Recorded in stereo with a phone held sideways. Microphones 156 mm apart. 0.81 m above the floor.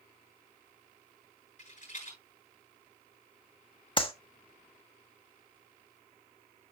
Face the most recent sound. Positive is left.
turn(degrees=35)  # may be behind; listen again after turning